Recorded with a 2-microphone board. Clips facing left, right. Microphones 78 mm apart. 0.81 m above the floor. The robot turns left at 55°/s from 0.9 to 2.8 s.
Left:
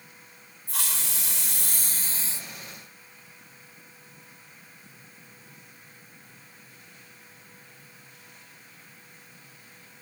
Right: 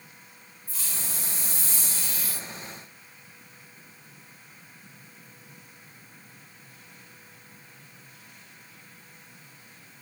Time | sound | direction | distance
0.7 | a hiss | 105° left | 3 m